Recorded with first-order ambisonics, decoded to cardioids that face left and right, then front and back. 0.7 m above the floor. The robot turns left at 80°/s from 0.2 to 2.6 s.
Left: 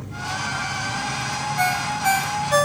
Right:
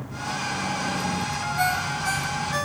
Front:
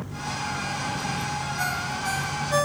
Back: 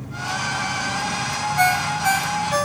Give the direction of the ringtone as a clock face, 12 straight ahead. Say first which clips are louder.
Left 3 dB, back 12 dB; 6 o'clock.